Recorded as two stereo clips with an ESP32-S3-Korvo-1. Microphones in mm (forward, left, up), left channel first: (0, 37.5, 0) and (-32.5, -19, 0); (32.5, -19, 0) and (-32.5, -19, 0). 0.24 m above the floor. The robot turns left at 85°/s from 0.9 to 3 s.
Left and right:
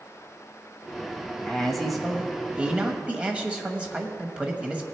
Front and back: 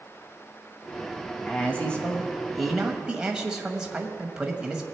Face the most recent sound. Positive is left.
turn(degrees=-130)